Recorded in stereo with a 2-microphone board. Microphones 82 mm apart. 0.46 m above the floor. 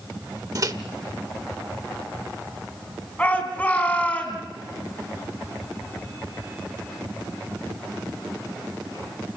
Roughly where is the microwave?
Right.